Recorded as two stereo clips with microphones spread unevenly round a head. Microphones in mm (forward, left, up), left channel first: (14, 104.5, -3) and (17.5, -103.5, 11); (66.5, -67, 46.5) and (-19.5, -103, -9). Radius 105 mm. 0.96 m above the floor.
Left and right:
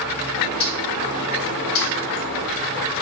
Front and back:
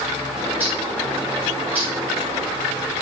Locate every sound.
0.3 s a bird: 120° left, 2 m